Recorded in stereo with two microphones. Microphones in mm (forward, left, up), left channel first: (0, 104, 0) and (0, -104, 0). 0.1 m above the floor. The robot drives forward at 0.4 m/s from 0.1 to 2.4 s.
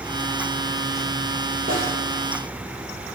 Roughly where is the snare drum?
Right.